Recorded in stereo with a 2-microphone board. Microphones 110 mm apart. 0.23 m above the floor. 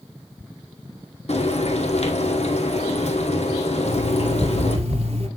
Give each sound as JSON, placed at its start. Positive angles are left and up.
{"t": 1.3, "sound": "frying", "side_deg": 70, "distance_m": 2.0}
{"t": 3.9, "sound": "an alarm clock", "side_deg": -70, "distance_m": 2.0}